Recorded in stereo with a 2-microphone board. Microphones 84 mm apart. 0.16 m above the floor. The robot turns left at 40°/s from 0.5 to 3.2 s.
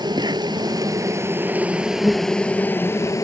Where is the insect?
115° right; by 3.2 s 135° left.